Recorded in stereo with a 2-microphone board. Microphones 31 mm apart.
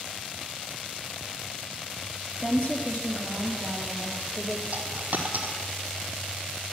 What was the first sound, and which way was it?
A woman speaking, 40° left (ahead or behind).